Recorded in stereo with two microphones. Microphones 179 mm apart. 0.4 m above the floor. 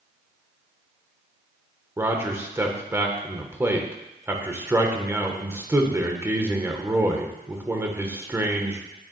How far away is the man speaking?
About 1.1 m.